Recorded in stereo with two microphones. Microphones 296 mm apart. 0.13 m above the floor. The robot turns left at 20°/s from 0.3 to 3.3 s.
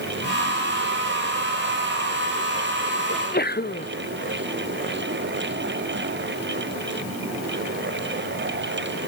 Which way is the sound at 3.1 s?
35° left (ahead or behind).